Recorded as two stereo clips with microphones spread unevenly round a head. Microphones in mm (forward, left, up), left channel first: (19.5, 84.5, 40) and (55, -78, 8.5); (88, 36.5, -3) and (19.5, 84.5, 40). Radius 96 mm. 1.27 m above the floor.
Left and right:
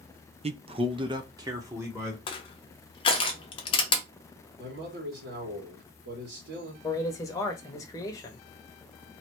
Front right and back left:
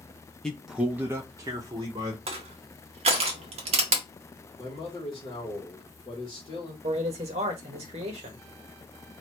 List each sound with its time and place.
0.4 s a man speaking: 80° right, 0.5 m; by 2.2 s 150° right, 1.1 m
2.3 s crushing: 165° left, 0.6 m
4.6 s a man speaking: 85° right, 1.8 m
6.8 s a man speaking: straight behind, 0.8 m